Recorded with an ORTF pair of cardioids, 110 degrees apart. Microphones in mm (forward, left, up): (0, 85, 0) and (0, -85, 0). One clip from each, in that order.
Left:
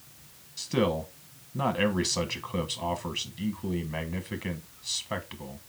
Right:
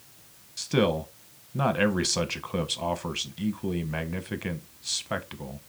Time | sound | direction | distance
0.6 | a man speaking | 20° right | 0.7 m